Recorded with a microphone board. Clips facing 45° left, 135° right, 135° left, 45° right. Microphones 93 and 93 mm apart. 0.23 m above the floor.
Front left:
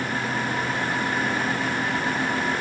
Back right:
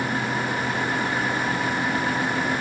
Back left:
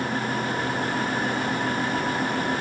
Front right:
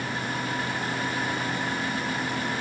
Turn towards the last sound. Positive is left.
No sound to turn to.